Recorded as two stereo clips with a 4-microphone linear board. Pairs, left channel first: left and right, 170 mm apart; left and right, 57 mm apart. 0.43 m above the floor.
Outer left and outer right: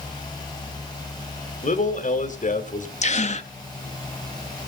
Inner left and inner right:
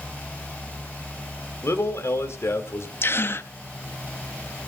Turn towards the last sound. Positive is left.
turn(degrees=45)  # may be behind; listen again after turning